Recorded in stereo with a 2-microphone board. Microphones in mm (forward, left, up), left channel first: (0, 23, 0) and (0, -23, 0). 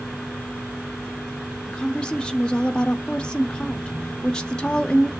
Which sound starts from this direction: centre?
A woman speaking, at 1.7 s.